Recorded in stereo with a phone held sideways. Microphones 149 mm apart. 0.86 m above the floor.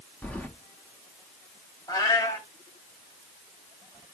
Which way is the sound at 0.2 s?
10° left (ahead or behind).